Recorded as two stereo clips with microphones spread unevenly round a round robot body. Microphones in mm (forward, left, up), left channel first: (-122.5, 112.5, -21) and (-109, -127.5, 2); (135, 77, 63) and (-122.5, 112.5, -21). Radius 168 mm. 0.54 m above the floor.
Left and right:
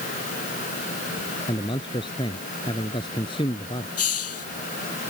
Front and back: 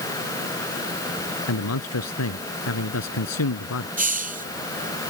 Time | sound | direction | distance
1.5 | a man speaking | 15° left | ?
4.0 | a hiss | 115° left | ?